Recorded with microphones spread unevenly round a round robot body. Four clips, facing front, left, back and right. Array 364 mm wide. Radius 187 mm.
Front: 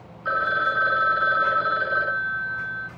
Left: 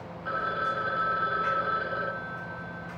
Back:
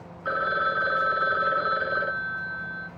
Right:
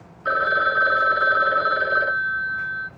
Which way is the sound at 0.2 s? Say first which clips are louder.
Right 9 dB, front 2 dB; 90° right.